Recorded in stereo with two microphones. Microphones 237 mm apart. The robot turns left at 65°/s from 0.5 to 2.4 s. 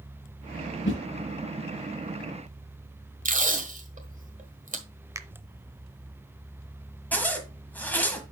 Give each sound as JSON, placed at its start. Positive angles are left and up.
{"t": 0.8, "sound": "a whoosh", "side_deg": 55, "distance_m": 2.5}
{"t": 3.2, "sound": "tape being pulled", "side_deg": -35, "distance_m": 1.4}
{"t": 5.2, "sound": "a finger snap", "side_deg": -15, "distance_m": 0.6}
{"t": 7.1, "sound": "a zipper", "side_deg": 5, "distance_m": 1.4}